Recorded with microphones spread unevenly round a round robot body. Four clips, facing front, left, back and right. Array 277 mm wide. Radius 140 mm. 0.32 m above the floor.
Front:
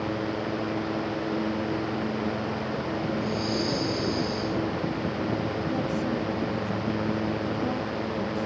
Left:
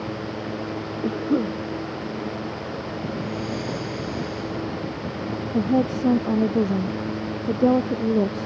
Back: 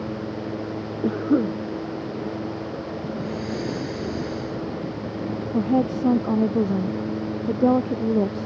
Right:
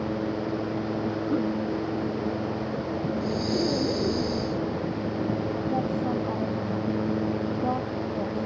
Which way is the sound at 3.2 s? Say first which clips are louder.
Right 2 dB, front 1 dB; 95° right.